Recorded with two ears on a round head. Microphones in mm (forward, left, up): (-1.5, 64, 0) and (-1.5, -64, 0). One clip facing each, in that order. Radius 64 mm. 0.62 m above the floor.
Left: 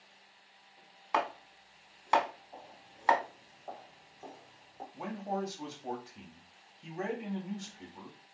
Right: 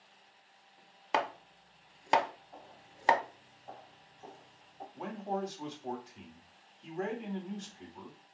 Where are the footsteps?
25° left (ahead or behind), 1.4 m; by 4.8 s 70° left (ahead or behind), 2.5 m.